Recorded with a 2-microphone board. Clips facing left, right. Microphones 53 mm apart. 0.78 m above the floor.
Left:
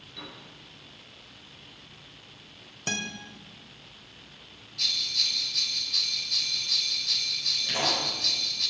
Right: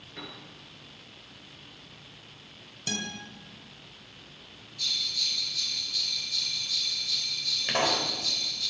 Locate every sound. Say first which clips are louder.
0.2 s a piano: right 1 dB; 40° right (ahead or behind), 4 m
2.9 s a guitar: left 2 dB; 35° left (ahead or behind), 2 m
4.8 s a bell: left 2 dB; 80° left, 2 m
7.7 s a pop: right 3 dB; 60° right (ahead or behind), 3 m